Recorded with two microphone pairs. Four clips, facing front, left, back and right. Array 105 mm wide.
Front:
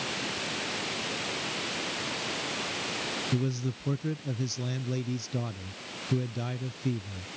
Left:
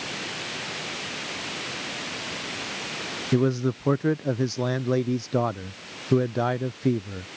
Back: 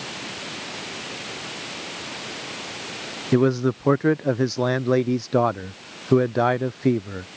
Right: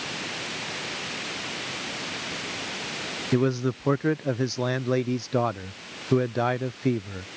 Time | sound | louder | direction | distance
3.3 | a man speaking | left 1 dB, back 15 dB | 175° right | ?